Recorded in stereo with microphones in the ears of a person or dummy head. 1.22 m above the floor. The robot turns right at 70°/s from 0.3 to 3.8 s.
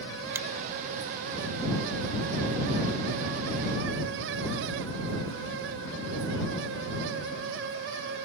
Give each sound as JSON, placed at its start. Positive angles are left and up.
{"t": 0.3, "sound": "a finger snap", "side_deg": -5}